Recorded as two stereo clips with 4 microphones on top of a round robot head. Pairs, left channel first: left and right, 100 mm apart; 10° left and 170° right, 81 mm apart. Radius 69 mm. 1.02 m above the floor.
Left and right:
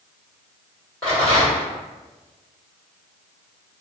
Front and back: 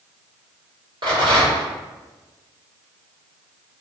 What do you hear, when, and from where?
1.0 s a rattle: 170° left, 1.4 m